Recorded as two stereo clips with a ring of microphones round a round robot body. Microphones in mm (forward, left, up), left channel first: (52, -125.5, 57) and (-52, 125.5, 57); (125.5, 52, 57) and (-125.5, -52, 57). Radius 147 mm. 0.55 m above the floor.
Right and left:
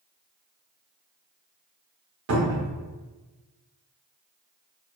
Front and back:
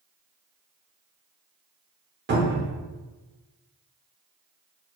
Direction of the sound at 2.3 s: 150° left.